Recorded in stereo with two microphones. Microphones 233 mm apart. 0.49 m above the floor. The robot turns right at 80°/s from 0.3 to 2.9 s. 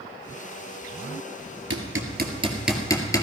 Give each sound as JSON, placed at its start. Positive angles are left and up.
{"t": 1.7, "sound": "hammering", "side_deg": -80, "distance_m": 2.0}